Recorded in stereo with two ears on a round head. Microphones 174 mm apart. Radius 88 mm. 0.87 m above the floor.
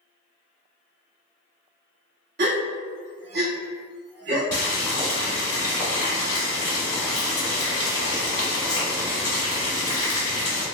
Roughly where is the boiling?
Centre.